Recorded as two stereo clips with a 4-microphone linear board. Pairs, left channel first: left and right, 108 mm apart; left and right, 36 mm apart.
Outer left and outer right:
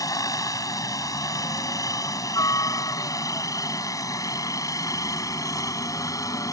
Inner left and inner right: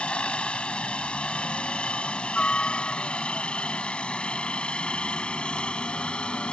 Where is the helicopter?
35° left (ahead or behind); by 6.5 s 30° left (ahead or behind).